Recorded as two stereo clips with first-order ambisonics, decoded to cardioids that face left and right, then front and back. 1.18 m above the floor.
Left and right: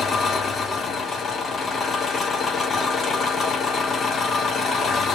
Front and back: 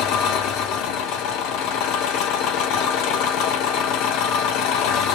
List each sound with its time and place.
0.0 s an engine running: 25° left, 1.0 m